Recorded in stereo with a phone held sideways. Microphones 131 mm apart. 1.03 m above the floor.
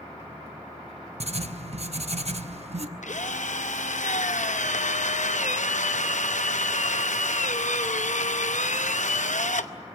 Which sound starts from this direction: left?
A drill, at 3.0 s.